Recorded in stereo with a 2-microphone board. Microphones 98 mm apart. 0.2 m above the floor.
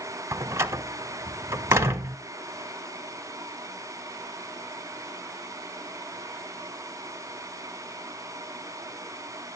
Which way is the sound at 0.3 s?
30° right (ahead or behind).